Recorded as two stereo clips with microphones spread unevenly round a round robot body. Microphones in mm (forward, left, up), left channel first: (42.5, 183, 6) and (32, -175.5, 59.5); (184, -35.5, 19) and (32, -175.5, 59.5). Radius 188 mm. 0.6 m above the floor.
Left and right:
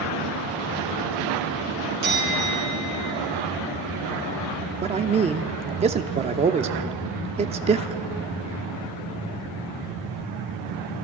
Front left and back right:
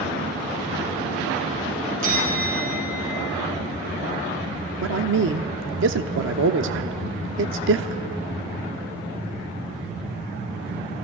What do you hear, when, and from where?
2.0 s a bell: 155° right, 7 m
4.8 s a man speaking: 170° right, 1.0 m